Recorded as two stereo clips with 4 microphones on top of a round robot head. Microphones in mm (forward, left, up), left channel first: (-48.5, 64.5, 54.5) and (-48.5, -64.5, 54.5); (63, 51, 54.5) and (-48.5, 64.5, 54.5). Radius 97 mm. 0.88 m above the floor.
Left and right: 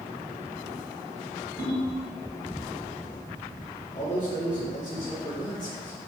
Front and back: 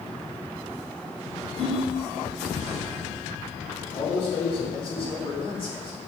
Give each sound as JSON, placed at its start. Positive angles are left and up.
{"t": 1.6, "sound": "a ringtone", "azimuth_deg": -55, "distance_m": 3.0}
{"t": 3.9, "sound": "a man speaking", "azimuth_deg": 25, "distance_m": 2.5}